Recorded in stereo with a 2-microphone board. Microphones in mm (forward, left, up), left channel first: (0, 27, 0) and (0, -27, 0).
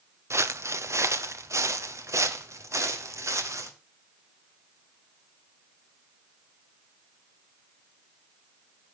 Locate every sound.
0.3 s footsteps: 65° right (ahead or behind), 1.0 m; by 3.7 s 75° right (ahead or behind), 4 m